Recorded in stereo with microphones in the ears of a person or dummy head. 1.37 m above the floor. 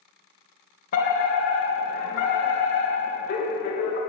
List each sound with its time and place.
0.9 s a fire alarm: 45° left (ahead or behind), 2.5 m